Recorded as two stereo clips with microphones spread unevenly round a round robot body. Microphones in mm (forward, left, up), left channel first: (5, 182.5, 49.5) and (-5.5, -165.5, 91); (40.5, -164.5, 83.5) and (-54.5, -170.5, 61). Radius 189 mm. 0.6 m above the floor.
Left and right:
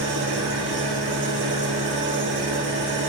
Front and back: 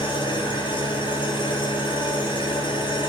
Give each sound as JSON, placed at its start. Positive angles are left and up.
{"t": 0.0, "sound": "an engine running", "azimuth_deg": -30, "distance_m": 4.0}